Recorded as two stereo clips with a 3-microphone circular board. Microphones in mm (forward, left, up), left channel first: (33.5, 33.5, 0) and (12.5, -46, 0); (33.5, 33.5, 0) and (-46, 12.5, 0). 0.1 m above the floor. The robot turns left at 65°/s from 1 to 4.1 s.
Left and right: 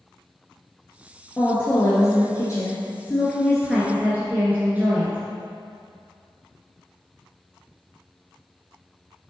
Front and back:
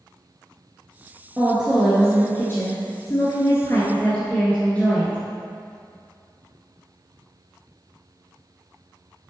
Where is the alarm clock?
No alarm clock in this recording.